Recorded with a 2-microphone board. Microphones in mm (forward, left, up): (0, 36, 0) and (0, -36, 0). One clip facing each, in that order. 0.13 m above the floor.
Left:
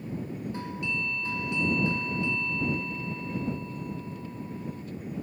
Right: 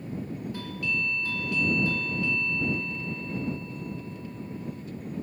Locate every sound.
0.5 s a doorbell: 25° left (ahead or behind)